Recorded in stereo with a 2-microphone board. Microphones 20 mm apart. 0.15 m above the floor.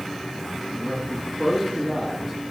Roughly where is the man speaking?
Left.